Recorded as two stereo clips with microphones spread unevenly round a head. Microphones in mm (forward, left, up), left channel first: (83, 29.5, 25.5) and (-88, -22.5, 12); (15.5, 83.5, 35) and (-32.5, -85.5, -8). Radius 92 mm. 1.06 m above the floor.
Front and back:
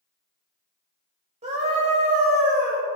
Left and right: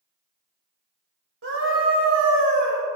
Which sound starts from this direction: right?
A scream, at 1.4 s.